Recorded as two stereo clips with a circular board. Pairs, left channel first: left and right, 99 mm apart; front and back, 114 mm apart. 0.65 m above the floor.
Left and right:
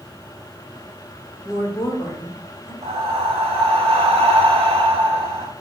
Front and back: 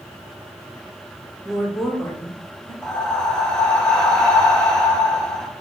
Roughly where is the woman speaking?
Behind left.